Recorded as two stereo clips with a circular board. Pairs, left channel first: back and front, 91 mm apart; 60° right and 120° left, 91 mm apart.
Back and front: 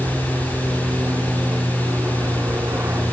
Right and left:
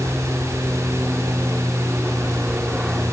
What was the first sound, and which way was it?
An aircraft, 35° left.